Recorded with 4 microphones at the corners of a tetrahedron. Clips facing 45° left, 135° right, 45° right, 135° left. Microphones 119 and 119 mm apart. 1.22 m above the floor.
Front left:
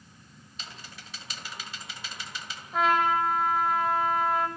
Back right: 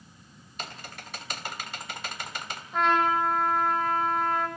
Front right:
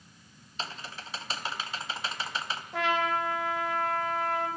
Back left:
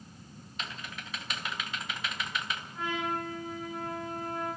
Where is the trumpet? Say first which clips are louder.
Even, front right 6 dB; 45° right, 5.5 m.